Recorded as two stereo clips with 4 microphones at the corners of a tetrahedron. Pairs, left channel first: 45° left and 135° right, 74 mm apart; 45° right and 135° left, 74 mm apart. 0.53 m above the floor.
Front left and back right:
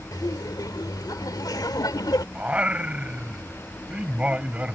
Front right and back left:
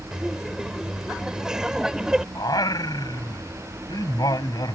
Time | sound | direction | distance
0.1 | laughter | 55° left | ?
2.4 | singing | 65° right | ?